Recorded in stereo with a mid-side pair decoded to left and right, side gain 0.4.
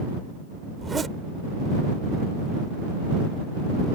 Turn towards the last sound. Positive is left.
turn(degrees=-35)